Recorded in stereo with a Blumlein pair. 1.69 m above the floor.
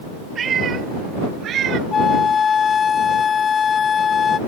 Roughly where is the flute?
Ahead.